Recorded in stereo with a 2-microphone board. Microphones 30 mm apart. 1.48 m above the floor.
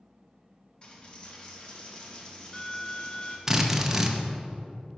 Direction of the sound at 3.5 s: 15° right (ahead or behind).